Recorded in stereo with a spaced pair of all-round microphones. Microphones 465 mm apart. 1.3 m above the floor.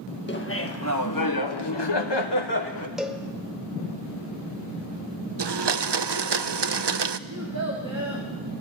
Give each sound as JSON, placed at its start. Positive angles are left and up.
{"t": 0.3, "sound": "laughter", "side_deg": 25, "distance_m": 1.8}
{"t": 3.0, "sound": "a cowbell", "side_deg": 0, "distance_m": 1.1}
{"t": 5.4, "sound": "a blender", "side_deg": -60, "distance_m": 0.5}
{"t": 7.3, "sound": "a child speaking", "side_deg": -35, "distance_m": 2.5}